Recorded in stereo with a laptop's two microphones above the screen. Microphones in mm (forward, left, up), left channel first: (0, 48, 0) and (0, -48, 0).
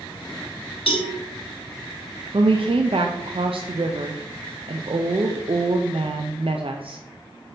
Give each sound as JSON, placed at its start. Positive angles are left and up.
{"t": 0.9, "sound": "a cowbell", "side_deg": 70, "distance_m": 1.3}
{"t": 2.3, "sound": "a woman speaking", "side_deg": -65, "distance_m": 0.6}